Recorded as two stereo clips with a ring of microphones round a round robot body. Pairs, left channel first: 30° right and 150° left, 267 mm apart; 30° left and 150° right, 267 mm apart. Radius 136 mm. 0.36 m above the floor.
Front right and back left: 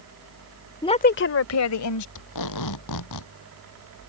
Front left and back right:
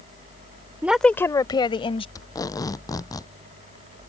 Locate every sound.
0.8 s a woman speaking: 80° right; by 2.0 s 40° right
2.1 s tape being pulled: 50° right